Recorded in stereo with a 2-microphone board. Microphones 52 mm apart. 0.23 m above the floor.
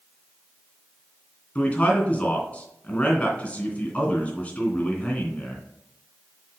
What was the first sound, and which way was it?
A man speaking, 30° left (ahead or behind).